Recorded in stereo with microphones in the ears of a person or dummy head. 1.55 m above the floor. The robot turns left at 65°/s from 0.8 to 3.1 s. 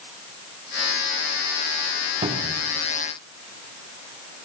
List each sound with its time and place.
2.2 s a cupboard door: 25° right (ahead or behind), 3 m; by 2.6 s centre (ahead or behind), 3 m